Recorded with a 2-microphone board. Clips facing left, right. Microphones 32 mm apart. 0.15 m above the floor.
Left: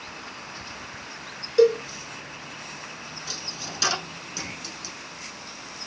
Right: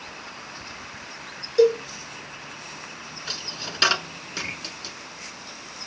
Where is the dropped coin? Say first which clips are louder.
Right 4 dB; 45° right (ahead or behind), 0.9 m.